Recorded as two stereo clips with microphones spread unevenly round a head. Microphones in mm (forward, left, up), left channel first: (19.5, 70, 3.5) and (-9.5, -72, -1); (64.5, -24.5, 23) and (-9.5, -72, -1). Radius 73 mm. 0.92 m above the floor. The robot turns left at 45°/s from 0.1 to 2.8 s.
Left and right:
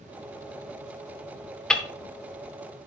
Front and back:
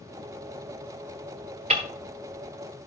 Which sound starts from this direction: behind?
Ticking, at 1.7 s.